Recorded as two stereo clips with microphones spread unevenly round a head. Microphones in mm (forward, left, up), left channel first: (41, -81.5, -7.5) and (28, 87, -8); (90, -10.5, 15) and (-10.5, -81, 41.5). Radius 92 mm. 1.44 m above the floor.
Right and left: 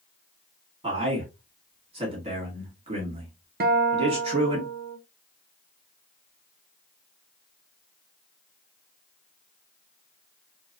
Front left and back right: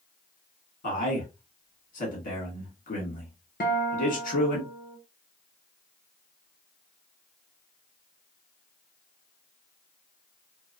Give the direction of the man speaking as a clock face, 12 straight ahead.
11 o'clock.